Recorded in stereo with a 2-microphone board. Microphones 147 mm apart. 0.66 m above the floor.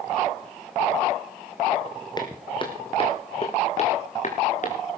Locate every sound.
2.2 s footsteps: 30° left (ahead or behind), 2.5 m; by 4.8 s 55° left (ahead or behind), 3.5 m